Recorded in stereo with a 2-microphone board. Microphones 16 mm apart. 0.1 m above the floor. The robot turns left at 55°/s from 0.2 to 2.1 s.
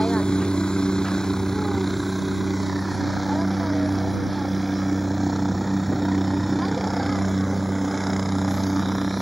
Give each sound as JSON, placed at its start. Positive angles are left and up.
{"t": 0.0, "sound": "a helicopter", "azimuth_deg": 100}